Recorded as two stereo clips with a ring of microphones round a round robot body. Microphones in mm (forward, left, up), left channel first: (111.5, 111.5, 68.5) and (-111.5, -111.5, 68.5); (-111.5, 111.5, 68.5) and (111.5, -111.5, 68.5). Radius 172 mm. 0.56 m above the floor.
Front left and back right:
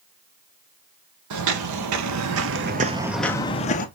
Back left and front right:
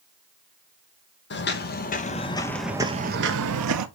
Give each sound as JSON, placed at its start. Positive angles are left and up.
{"t": 1.3, "sound": "footsteps", "azimuth_deg": -170, "distance_m": 1.2}